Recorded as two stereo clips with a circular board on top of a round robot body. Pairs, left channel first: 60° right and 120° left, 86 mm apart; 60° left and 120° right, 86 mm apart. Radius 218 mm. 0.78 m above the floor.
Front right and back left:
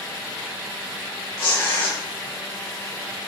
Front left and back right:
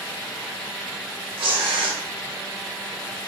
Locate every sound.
1.4 s tearing paper: 115° right, 0.6 m